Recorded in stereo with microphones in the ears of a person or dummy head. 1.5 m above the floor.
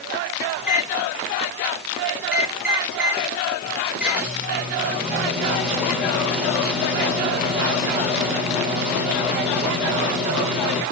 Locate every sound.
0.6 s a microwave: 5° right (ahead or behind), 1.8 m